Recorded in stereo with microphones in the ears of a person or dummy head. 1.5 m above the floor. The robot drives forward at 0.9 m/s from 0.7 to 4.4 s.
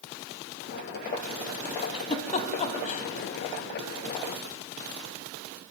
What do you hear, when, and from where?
1.8 s a giggle: 30° left (ahead or behind), 2.5 m; by 3.0 s 40° left (ahead or behind), 1.7 m